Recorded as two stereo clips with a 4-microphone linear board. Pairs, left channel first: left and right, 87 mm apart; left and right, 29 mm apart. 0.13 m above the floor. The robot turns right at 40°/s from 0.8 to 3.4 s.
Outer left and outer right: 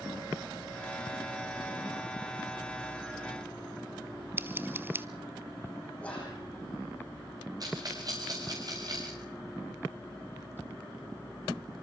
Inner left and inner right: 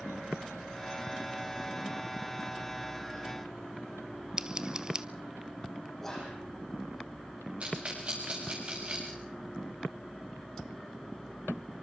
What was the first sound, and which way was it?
Scissors, 25° right (ahead or behind).